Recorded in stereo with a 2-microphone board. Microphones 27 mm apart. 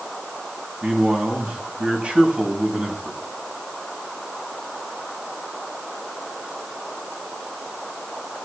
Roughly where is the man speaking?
Right.